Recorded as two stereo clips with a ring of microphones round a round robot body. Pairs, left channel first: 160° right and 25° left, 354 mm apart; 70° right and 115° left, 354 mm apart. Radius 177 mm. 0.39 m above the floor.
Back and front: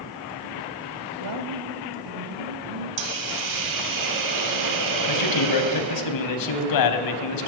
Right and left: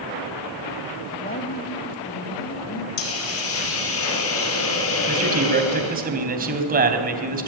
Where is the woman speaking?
Straight ahead, 1.5 m; by 2.9 s 10° right, 4 m.